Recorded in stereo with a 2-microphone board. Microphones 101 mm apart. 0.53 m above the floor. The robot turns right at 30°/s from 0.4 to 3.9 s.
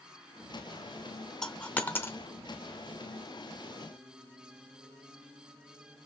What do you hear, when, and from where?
1.4 s a dropped coin: 5° left (ahead or behind), 0.6 m; by 2.2 s 25° left (ahead or behind), 0.6 m